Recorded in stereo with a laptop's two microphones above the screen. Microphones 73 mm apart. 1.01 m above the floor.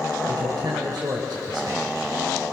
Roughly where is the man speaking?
Right.